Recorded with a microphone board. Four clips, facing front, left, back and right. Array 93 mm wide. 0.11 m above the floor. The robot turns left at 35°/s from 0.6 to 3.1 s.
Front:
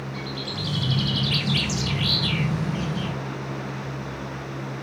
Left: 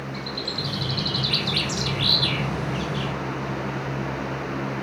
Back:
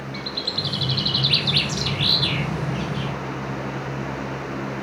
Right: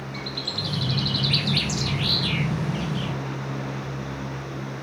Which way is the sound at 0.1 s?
160° right.